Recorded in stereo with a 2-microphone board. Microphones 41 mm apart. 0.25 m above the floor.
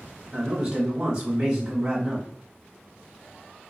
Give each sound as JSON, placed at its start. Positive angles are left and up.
{"t": 0.3, "sound": "a man speaking", "side_deg": -20, "distance_m": 1.1}